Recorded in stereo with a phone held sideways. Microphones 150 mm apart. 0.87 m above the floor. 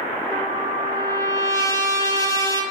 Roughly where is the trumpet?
Left.